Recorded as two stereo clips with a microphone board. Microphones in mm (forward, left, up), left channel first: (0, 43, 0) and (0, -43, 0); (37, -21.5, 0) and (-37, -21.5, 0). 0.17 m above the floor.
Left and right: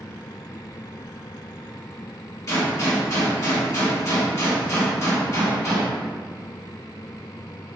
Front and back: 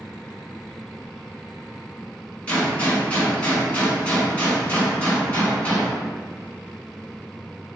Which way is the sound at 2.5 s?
60° left.